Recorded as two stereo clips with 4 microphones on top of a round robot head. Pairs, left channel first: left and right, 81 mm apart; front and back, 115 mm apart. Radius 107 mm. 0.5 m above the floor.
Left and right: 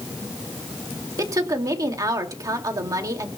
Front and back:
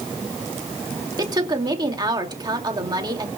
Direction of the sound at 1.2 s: 130° right.